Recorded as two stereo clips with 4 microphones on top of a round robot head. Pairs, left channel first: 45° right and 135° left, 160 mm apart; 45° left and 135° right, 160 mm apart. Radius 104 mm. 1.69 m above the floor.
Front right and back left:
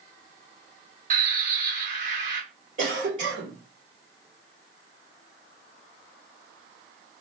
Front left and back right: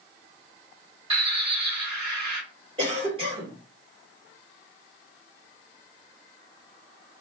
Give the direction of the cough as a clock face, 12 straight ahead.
6 o'clock.